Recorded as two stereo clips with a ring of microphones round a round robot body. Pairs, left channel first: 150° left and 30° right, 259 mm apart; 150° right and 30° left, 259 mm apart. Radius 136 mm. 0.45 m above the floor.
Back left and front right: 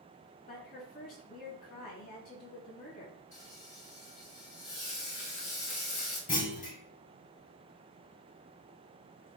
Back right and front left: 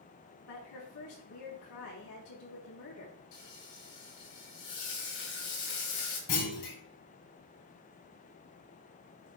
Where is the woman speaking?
155° right, 5 m.